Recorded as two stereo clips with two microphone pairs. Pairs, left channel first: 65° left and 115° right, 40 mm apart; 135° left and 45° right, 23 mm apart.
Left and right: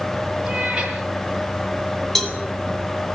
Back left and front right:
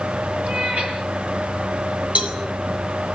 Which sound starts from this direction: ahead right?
A cat meowing, at 0.4 s.